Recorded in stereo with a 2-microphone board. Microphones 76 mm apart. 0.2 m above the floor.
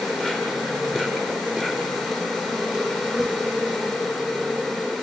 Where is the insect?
5° left (ahead or behind), 4.5 m.